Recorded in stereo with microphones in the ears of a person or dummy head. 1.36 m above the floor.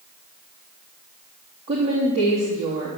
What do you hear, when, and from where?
1.7 s a woman speaking: 30° right (ahead or behind), 3 m